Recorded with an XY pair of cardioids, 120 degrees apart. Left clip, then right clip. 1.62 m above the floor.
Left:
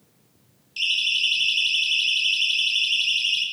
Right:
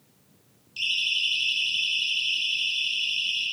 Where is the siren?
25° left, 5 m; by 3.5 s 70° left, 5.5 m.